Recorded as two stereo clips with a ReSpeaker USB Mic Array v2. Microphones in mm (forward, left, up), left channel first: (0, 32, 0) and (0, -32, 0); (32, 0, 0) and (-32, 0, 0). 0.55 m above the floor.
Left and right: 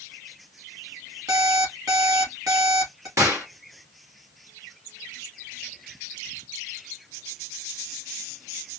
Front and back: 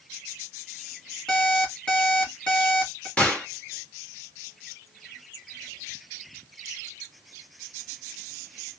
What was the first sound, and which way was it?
An alarm clock, 80° right.